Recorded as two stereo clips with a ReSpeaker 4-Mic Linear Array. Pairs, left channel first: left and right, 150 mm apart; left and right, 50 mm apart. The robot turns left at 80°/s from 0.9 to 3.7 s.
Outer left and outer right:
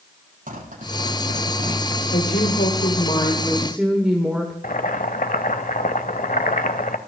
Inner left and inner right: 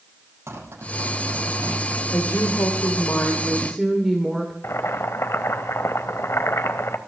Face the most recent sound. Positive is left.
turn(degrees=65)  # may be behind; listen again after turning